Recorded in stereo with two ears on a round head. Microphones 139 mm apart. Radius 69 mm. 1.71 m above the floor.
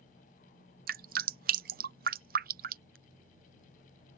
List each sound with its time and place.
0.9 s dripping: 65° right (ahead or behind)